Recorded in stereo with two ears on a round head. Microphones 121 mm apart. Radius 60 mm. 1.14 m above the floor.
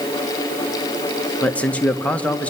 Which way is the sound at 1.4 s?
10° left (ahead or behind).